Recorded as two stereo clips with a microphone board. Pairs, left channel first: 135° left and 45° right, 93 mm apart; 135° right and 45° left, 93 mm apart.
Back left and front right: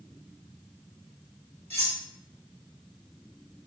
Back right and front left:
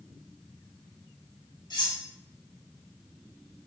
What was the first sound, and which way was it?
Cutlery clinking, 160° right.